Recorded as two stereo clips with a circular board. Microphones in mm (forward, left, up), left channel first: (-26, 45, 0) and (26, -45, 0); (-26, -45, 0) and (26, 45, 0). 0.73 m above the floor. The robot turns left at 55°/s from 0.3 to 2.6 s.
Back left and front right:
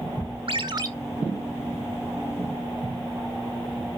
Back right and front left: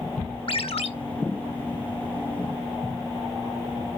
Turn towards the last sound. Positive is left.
turn(degrees=150)